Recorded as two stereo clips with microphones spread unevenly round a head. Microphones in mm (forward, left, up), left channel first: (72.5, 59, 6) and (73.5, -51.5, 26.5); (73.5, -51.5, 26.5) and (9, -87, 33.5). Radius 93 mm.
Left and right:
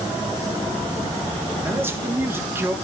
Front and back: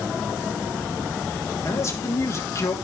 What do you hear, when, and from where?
1.6 s a man speaking: 20° right, 3 m